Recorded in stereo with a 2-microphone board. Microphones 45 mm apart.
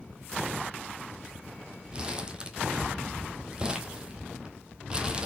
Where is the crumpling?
20° right (ahead or behind), 1.3 m.